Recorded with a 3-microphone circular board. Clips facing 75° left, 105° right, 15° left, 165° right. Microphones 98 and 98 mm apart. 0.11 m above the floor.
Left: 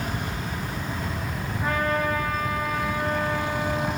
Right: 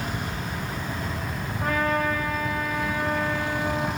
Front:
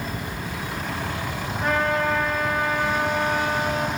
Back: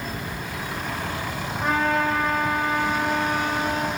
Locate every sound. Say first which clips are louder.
1.6 s a trumpet: right 1 dB, even; 95° right, 7.5 m